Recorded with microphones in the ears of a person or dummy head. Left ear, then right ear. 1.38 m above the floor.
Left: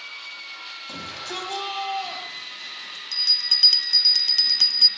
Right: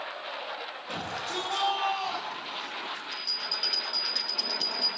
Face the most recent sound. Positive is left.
turn(degrees=45)  # may be behind; listen again after turning